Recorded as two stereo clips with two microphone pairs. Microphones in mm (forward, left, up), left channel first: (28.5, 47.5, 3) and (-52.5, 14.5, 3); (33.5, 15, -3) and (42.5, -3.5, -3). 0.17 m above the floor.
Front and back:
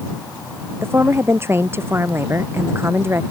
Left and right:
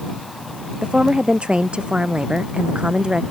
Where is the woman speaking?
95° right.